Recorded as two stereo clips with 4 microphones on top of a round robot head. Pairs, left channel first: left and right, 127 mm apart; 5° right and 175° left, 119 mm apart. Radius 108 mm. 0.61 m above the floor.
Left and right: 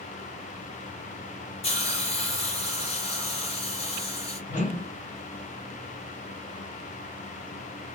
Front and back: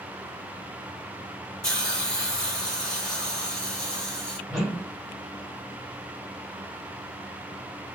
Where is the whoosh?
85° left, 1.5 m.